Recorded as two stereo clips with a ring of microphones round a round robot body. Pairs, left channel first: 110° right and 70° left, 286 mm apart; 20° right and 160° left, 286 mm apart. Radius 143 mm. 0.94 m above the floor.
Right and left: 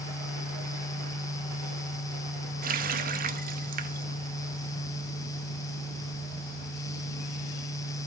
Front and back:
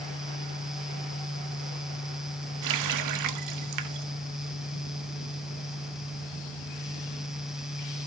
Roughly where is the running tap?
Behind left.